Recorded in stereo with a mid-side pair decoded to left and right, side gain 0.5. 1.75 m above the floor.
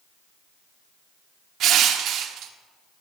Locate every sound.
1.6 s crushing: 70° right, 1.0 m